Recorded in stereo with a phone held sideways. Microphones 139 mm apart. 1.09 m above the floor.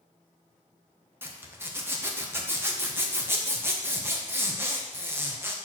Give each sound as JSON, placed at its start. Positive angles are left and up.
{"t": 1.2, "sound": "a zipper", "side_deg": -15, "distance_m": 0.9}